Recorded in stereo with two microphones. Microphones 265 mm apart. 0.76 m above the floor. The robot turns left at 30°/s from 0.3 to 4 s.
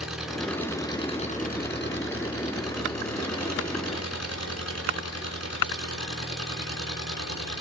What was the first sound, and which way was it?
An engine running, straight behind.